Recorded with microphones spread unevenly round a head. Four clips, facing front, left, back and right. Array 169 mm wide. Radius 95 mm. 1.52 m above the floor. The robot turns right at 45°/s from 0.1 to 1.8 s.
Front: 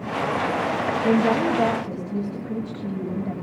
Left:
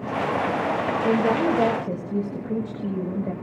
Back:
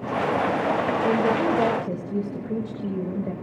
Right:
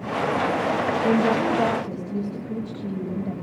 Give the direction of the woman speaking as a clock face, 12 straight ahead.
10 o'clock.